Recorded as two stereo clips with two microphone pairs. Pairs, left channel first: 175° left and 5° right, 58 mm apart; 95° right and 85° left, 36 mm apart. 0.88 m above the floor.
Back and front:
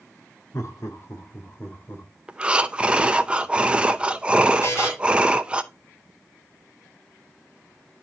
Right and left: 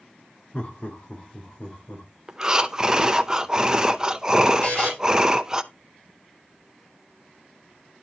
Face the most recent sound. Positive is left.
turn(degrees=-145)